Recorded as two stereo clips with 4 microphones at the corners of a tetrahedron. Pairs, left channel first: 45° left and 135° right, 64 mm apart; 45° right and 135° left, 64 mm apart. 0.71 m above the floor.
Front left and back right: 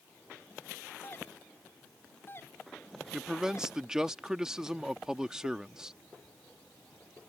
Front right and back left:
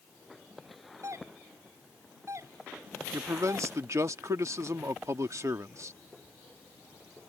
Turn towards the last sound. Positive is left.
turn(degrees=145)